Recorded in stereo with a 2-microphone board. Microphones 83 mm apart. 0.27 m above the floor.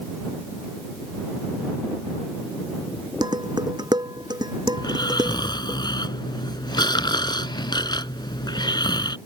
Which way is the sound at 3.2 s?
60° right (ahead or behind).